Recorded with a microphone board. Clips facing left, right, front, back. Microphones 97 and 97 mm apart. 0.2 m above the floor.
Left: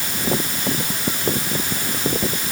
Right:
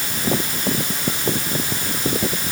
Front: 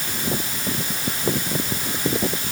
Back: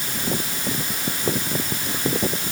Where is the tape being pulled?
I don't hear tape being pulled.